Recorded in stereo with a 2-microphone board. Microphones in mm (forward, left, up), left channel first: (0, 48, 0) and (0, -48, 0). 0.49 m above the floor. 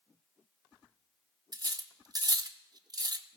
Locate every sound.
1.5 s cutlery clinking: 40° right (ahead or behind), 0.5 m